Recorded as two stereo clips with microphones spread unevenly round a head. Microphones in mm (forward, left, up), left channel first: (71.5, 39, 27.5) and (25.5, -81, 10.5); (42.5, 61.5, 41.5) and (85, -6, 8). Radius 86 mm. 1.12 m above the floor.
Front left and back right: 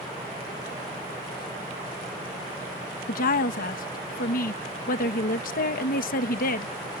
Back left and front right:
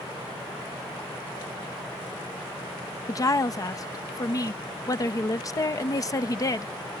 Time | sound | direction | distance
3.1 | a woman speaking | 70° left | ?